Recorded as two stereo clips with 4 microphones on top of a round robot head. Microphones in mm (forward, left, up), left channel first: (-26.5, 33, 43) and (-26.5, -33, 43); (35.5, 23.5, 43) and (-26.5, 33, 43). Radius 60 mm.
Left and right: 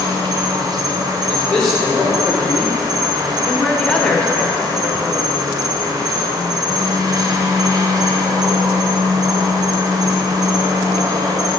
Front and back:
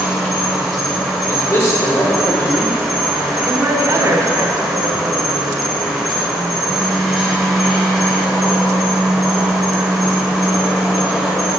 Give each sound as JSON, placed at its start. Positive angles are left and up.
{"t": 0.0, "sound": "an insect", "azimuth_deg": -100, "distance_m": 1.1}
{"t": 1.3, "sound": "a man speaking", "azimuth_deg": 10, "distance_m": 2.0}
{"t": 3.5, "sound": "a woman speaking", "azimuth_deg": 165, "distance_m": 1.3}